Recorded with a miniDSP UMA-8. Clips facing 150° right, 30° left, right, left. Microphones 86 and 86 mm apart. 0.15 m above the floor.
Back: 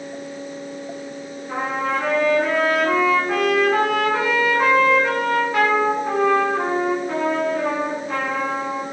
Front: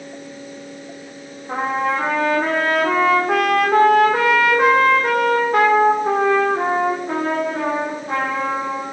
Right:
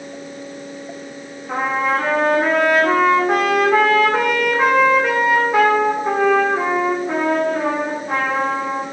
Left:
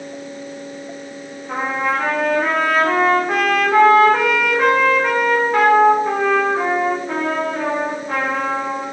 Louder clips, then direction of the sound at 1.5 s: Front 3 dB, right 2 dB; 5° right.